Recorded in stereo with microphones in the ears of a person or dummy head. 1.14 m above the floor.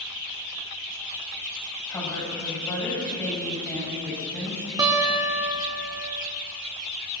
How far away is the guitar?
About 2 m.